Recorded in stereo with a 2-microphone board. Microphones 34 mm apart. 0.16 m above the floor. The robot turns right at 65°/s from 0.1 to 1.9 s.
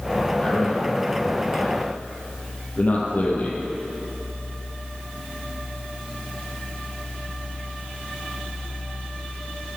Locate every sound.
0.4 s a man speaking: 25° left (ahead or behind), 5 m; by 3.6 s 50° left (ahead or behind), 5 m